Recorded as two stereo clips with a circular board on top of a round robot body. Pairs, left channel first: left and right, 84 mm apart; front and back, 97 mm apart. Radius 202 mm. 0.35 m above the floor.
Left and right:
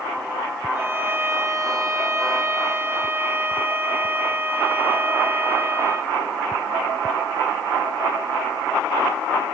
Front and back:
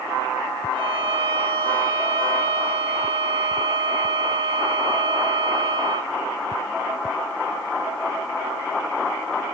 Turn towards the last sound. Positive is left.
turn(degrees=-155)